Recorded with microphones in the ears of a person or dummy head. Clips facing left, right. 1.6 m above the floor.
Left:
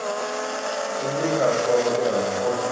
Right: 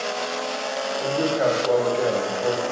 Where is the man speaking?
Centre (ahead or behind), 1.7 m.